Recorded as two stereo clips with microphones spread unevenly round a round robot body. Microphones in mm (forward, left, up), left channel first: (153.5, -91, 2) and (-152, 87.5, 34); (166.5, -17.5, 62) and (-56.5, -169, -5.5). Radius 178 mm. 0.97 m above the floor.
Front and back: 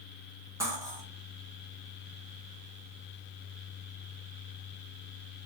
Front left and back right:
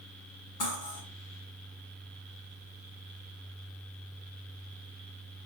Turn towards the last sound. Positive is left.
turn(degrees=70)